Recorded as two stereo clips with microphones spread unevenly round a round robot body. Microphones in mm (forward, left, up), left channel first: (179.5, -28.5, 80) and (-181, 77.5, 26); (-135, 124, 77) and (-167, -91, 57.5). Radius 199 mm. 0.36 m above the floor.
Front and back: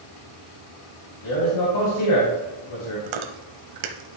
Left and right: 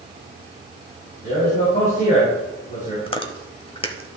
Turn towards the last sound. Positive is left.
turn(degrees=150)